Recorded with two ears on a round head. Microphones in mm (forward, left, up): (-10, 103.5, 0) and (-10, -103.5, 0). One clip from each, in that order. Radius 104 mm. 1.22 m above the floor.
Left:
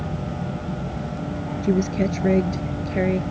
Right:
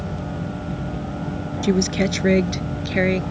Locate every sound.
1.6 s a woman speaking: 85° right